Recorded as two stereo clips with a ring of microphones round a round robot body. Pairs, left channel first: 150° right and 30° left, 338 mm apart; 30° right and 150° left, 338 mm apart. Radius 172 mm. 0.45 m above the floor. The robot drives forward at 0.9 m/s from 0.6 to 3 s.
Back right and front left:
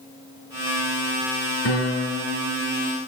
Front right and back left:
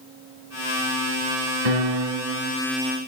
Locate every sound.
1.6 s a piano: 155° left, 1.8 m; by 2.5 s 165° left, 2.5 m